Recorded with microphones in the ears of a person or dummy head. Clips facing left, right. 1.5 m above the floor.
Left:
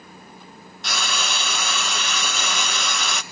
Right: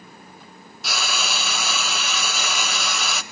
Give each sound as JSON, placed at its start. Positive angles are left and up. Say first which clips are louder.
{"t": 0.8, "sound": "frying", "louder": "even", "side_deg": -5, "distance_m": 1.0}